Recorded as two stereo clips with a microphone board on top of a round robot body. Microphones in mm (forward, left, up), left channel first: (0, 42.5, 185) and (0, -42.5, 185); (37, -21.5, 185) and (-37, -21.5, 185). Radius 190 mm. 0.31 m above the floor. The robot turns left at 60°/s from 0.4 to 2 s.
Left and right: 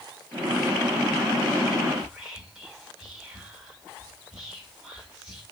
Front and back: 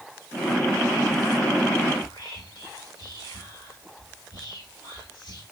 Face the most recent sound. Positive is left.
turn(degrees=-5)